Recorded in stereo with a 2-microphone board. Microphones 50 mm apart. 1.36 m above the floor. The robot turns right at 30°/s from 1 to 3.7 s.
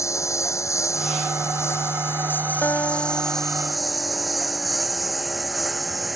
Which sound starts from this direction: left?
A lawn mower, at 0.0 s.